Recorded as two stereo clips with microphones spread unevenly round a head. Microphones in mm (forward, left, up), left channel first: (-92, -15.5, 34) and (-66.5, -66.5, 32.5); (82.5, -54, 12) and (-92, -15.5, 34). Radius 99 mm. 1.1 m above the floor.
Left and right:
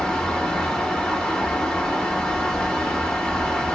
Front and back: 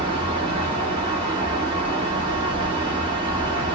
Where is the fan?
160° left, 0.9 m.